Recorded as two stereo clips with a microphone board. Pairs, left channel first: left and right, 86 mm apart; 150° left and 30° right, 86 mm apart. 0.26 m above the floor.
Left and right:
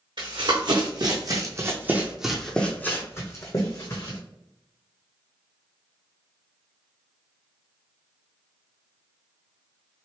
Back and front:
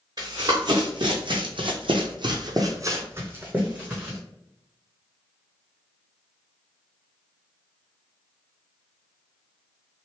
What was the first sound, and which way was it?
Running footsteps, 70° right.